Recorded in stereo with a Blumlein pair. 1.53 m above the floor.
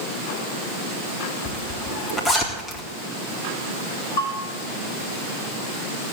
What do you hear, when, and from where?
1.4 s a zipper: 20° left, 4 m
4.2 s a bell: 60° left, 7 m